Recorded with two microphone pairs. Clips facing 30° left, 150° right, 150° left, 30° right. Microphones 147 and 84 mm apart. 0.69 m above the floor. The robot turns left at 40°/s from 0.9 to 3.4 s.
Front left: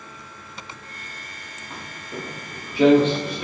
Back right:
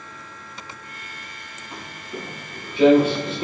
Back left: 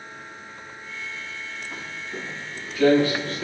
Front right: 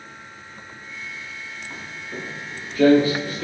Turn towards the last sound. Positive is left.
turn(degrees=-130)